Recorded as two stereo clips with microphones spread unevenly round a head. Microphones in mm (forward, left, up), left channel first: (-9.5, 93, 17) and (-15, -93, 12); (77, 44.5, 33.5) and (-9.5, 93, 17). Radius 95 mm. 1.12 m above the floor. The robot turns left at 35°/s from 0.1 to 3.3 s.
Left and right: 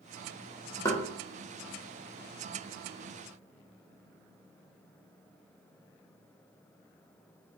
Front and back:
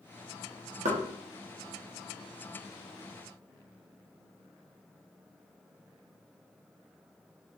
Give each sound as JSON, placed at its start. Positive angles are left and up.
{"t": 0.8, "sound": "knocking", "azimuth_deg": 165, "distance_m": 0.9}